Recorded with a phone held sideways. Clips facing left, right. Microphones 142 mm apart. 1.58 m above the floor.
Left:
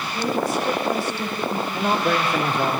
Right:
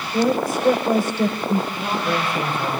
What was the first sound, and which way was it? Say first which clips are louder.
A woman speaking: right 4 dB; 50° right (ahead or behind).